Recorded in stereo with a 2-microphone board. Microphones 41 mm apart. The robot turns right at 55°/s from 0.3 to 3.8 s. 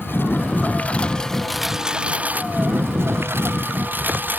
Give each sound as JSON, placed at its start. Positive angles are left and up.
{"t": 0.0, "sound": "a lawn mower", "azimuth_deg": 115}